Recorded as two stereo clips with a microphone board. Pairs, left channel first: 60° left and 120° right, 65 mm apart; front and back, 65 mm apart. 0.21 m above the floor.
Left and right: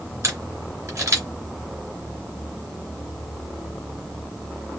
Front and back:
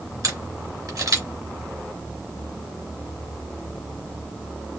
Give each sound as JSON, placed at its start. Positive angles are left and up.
{"t": 0.2, "sound": "a camera shutter", "azimuth_deg": -160, "distance_m": 2.5}